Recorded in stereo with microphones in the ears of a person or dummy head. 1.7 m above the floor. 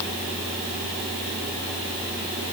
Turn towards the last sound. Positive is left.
No sound to turn to.